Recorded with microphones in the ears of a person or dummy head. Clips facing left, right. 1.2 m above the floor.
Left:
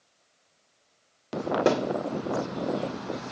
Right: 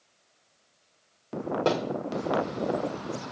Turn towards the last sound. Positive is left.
turn(degrees=15)  # may be behind; listen again after turning